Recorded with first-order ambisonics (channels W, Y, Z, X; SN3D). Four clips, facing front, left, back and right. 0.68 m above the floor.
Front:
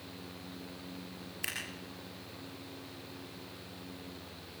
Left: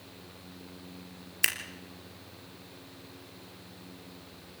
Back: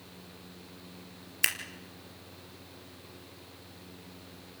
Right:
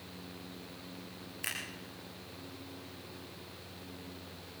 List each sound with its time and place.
1.4 s scissors: 130° left, 3 m